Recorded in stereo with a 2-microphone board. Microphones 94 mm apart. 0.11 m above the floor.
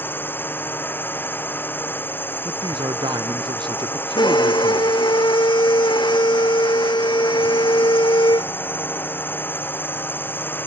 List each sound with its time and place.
0.0 s a drone: 20° left (ahead or behind)
2.5 s a man speaking: 55° right (ahead or behind)
4.2 s a violin: 55° left (ahead or behind)